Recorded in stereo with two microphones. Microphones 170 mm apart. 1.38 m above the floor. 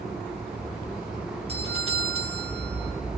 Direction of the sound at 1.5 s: 35° right (ahead or behind).